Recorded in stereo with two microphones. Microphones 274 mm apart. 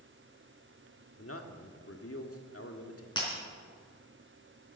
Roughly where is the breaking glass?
Centre.